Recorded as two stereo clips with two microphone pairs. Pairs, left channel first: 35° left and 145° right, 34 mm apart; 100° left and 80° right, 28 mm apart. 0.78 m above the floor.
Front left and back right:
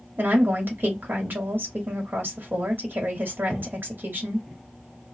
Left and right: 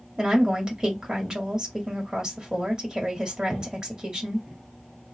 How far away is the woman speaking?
About 1.6 m.